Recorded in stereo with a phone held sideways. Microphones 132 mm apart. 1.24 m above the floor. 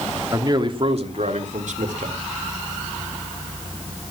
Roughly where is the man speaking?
Right.